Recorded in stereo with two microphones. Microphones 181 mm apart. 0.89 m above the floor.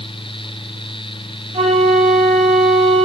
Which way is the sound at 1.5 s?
40° right (ahead or behind).